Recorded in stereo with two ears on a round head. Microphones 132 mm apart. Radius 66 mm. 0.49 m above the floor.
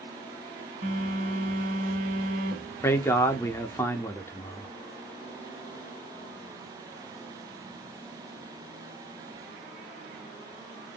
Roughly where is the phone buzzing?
Right.